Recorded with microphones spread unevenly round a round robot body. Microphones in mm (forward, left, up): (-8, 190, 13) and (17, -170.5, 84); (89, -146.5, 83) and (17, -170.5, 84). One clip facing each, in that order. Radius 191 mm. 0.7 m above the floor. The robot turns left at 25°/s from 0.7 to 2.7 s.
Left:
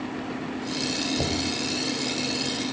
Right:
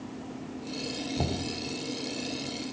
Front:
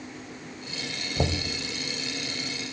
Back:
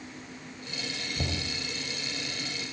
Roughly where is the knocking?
Ahead.